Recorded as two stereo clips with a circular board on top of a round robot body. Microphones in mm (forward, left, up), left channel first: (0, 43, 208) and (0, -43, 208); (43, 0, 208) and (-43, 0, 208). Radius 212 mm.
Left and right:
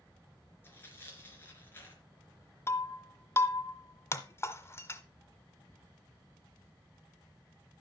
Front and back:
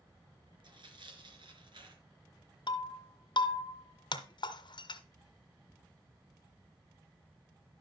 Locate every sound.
0.6 s tearing paper: 155° left, 3.5 m
2.7 s breaking glass: 30° left, 1.2 m